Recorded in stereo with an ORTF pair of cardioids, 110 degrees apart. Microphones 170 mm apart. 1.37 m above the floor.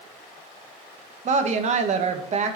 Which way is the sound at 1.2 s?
45° right.